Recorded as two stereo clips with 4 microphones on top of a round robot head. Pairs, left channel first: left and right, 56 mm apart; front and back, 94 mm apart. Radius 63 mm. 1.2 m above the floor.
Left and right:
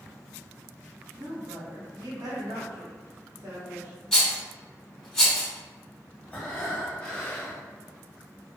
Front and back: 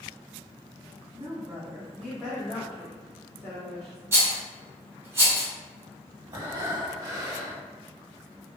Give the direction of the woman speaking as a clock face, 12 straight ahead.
4 o'clock.